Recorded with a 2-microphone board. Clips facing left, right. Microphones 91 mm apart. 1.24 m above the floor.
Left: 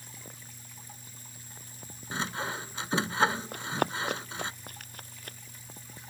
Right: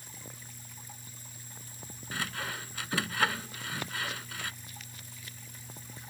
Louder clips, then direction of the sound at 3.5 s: Left 8 dB; 55° left (ahead or behind).